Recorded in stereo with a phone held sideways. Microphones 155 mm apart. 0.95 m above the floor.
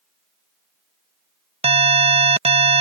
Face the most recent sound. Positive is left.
turn(degrees=-40)  # may be behind; listen again after turning